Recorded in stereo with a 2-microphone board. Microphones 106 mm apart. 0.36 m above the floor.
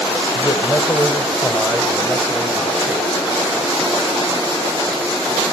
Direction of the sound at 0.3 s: 40° left (ahead or behind).